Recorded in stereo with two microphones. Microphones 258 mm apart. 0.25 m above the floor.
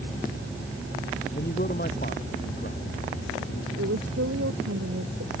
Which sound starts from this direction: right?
A woman speaking, at 3.8 s.